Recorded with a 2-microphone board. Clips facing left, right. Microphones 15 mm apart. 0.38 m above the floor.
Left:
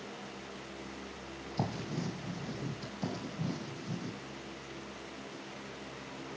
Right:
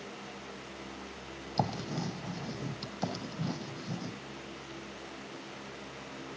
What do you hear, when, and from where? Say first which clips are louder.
1.6 s writing: right 4 dB; 70° right (ahead or behind), 3.5 m